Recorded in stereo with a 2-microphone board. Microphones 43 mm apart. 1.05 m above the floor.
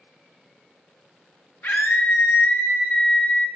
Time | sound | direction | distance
1.6 | a scream | 50° left (ahead or behind) | 1.1 m